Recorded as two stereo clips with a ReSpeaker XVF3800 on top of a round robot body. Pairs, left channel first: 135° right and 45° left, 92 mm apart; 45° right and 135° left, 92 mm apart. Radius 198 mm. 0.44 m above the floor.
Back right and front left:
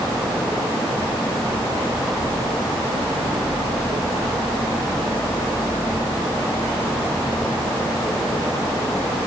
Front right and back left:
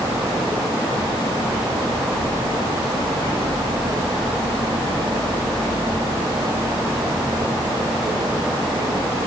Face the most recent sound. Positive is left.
No sound to turn to.